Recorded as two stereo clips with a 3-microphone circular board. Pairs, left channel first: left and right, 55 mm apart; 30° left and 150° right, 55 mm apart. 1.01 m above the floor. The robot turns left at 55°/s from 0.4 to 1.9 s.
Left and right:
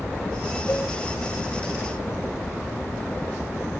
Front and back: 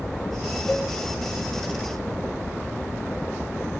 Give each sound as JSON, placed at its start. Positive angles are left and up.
{"t": 0.7, "sound": "a cowbell", "azimuth_deg": 115, "distance_m": 2.0}